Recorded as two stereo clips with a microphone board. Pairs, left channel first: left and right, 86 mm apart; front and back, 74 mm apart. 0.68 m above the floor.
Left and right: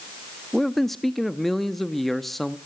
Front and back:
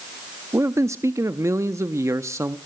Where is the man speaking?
175° left, 0.7 m.